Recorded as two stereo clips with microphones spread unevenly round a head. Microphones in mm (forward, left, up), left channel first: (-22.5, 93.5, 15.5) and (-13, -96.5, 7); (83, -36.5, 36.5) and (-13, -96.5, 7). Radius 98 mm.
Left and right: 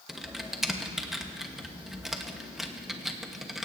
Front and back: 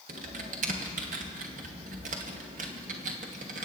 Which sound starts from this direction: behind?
Typing on a keyboard, at 0.1 s.